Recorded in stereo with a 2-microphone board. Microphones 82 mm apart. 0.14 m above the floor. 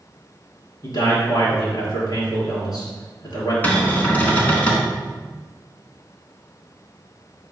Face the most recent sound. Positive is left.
turn(degrees=20)  # may be behind; listen again after turning